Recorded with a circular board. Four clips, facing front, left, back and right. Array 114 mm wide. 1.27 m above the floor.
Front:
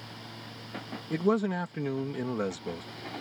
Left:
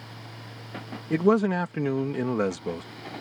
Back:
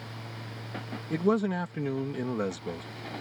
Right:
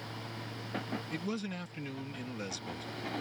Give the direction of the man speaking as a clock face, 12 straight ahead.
9 o'clock.